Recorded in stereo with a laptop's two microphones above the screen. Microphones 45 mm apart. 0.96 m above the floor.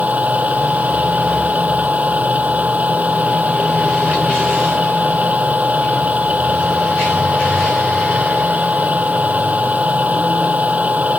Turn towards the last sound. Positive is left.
turn(degrees=-30)  # may be behind; listen again after turning